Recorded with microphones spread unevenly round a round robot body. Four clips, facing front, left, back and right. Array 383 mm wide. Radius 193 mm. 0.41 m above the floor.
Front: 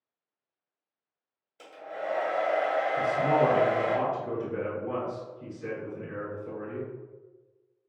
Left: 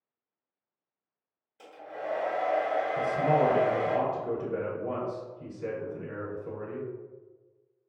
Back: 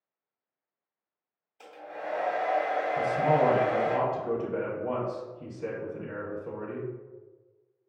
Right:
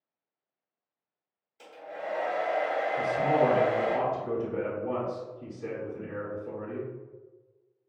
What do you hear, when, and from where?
1.6 s a hair dryer: 20° left, 1.8 m
3.0 s a man speaking: 120° left, 1.4 m